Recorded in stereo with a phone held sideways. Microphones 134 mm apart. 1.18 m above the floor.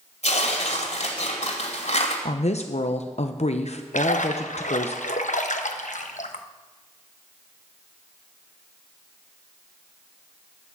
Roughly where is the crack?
I don't hear a crack.